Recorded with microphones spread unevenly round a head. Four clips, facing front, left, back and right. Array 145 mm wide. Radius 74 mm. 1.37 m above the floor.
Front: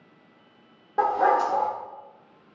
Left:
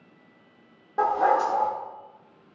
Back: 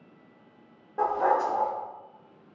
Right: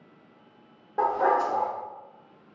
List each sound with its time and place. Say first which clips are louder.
1.0 s a dog barking: left 2 dB, front 3 dB; 10° right, 0.8 m